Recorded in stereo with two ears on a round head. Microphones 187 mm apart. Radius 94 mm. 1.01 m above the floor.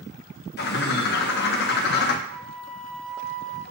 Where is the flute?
55° right (ahead or behind), 0.9 m.